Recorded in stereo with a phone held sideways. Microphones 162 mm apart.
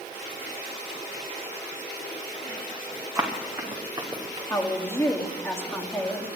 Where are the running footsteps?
15° right (ahead or behind), 4 m; by 4.4 s 25° right (ahead or behind), 4.5 m.